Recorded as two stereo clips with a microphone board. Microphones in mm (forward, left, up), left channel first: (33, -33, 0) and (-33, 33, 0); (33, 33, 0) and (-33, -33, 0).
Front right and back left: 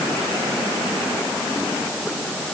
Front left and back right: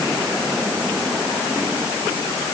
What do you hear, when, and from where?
Only background noise.